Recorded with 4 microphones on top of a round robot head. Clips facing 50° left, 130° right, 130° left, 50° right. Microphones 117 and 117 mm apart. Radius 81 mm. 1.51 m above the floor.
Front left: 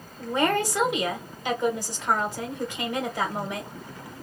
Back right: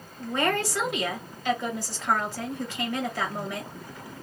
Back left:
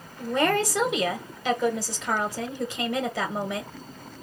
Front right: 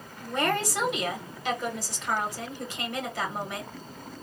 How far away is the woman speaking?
About 1.4 m.